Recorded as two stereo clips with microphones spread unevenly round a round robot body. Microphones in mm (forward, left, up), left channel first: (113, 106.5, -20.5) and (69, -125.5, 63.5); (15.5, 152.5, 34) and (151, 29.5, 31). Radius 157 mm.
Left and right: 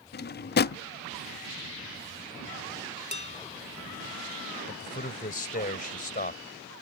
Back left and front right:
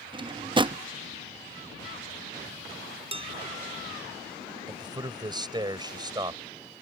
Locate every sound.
0.1 s a drawer: 25° left
3.1 s dishes clattering: 15° left
4.7 s a man speaking: 25° left